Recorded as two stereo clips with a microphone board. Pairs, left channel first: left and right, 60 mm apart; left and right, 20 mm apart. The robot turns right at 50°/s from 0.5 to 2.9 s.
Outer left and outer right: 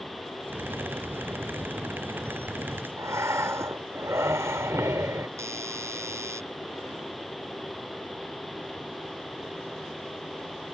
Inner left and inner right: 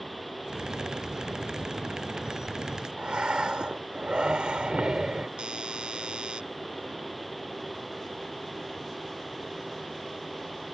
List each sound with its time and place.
3.0 s breathing: 55° right (ahead or behind)
5.4 s a doorbell: 55° right (ahead or behind)